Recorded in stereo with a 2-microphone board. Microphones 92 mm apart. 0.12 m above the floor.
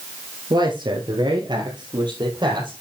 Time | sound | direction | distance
0.5 | a man speaking | 55° right (ahead or behind) | 2.0 m